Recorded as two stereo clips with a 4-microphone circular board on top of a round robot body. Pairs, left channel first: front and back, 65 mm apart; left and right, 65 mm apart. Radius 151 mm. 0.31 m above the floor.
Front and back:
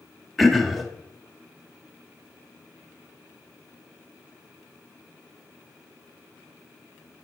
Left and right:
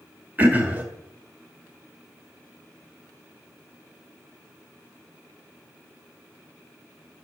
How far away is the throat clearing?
About 1.5 m.